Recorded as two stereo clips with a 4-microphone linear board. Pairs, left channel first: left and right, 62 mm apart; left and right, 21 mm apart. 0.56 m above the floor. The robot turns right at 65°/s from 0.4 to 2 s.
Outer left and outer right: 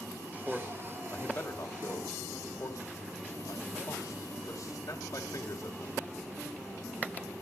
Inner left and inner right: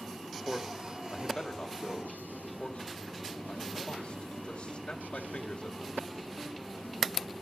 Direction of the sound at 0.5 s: 10° right (ahead or behind).